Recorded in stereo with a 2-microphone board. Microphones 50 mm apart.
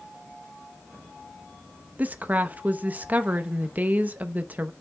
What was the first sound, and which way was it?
A woman speaking, 35° right (ahead or behind).